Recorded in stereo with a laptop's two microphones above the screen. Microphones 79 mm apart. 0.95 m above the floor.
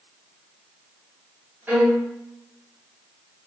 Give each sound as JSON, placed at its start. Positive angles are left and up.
{"t": 1.7, "sound": "a violin", "side_deg": -25, "distance_m": 4.0}